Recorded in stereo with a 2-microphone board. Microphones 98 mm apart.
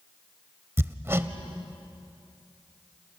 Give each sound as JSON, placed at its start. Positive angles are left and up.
{"t": 0.8, "sound": "hammering", "side_deg": -25, "distance_m": 0.9}